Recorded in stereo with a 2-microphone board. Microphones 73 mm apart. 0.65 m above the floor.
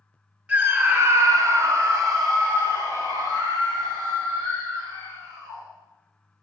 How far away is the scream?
About 1.2 m.